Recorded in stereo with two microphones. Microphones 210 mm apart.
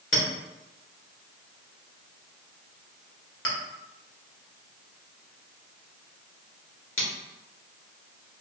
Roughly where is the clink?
Left.